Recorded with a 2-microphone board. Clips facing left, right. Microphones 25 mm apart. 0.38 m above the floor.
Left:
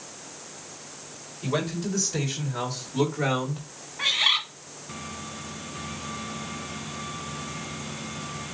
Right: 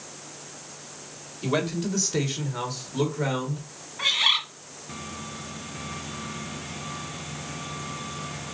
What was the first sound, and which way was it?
A man speaking, 35° right (ahead or behind).